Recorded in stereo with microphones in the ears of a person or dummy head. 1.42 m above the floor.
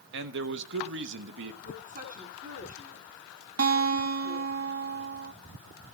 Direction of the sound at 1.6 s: 45° right (ahead or behind).